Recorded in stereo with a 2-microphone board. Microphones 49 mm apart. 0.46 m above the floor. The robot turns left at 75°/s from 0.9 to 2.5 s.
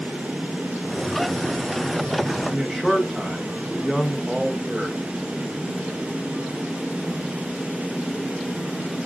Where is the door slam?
No door slam in this recording.